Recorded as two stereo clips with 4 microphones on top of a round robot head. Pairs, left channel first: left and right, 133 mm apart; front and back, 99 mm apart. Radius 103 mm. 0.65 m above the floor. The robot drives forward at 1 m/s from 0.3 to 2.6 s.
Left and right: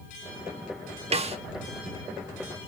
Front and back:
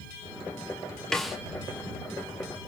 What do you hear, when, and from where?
1.1 s a snare drum: 85° right, 1.6 m; by 1.4 s 95° right, 1.6 m